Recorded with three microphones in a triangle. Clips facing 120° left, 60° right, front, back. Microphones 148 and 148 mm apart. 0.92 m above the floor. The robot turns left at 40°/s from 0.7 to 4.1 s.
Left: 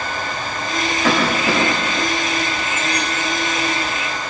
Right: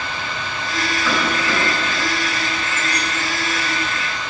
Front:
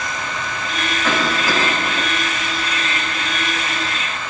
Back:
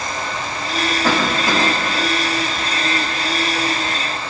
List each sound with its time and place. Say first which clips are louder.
1.0 s a cough: left 5 dB, back 1 dB; 130° left, 8.5 m; by 2.0 s 90° left, 8.5 m